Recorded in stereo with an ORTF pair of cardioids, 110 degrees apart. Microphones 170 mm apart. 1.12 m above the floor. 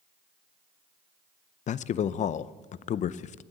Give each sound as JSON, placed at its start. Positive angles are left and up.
{"t": 1.7, "sound": "a man speaking", "azimuth_deg": 45, "distance_m": 0.6}